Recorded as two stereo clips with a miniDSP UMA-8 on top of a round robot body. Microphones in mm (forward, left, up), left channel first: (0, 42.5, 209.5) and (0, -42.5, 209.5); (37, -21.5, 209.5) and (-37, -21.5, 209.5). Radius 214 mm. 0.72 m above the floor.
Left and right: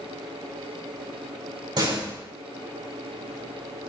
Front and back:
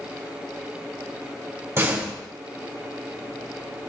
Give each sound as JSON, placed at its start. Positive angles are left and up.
{"t": 1.8, "sound": "a door slam", "azimuth_deg": -125, "distance_m": 4.0}